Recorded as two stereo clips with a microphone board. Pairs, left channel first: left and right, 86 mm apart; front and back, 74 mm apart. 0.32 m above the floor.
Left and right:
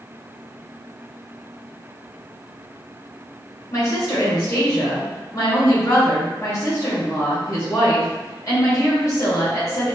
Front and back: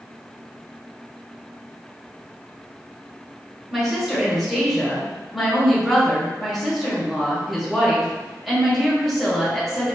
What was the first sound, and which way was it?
A woman speaking, 95° left.